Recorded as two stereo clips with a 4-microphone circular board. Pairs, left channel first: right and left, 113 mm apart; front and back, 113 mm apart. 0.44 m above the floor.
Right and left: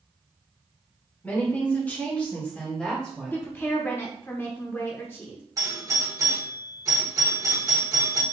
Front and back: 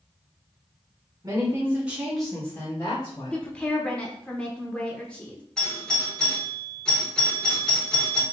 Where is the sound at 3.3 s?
60° right, 0.8 m.